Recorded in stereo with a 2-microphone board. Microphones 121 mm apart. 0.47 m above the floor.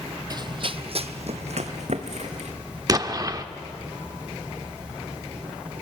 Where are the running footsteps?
35° right (ahead or behind), 0.6 m; by 2.5 s 75° right (ahead or behind), 1.7 m.